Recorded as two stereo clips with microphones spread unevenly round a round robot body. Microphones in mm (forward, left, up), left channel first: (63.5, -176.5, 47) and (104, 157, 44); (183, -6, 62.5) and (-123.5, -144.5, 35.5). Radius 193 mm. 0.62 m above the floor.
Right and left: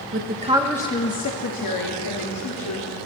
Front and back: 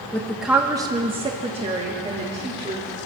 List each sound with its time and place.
0.1 s a woman speaking: 115° left, 1.4 m; by 2.9 s 85° right, 3.5 m